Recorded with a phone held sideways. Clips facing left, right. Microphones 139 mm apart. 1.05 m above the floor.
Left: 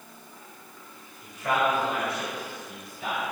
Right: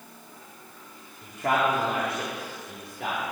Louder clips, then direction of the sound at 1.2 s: Right 1 dB; 55° right (ahead or behind).